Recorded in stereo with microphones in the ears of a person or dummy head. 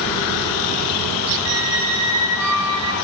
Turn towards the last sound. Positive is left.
turn(degrees=-80)